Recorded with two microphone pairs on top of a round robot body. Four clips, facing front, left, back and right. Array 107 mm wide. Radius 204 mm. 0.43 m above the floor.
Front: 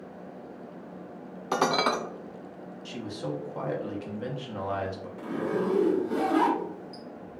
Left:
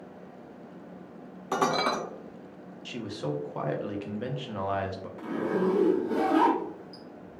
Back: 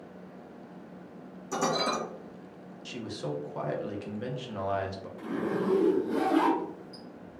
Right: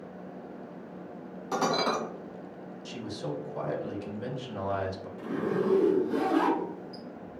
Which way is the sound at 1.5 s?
10° left.